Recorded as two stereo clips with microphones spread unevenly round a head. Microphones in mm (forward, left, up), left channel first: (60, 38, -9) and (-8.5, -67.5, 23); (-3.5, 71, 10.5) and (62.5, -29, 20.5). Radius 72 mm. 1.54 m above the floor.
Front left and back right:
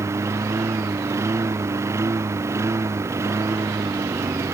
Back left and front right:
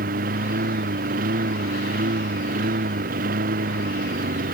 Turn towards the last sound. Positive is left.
turn(degrees=-55)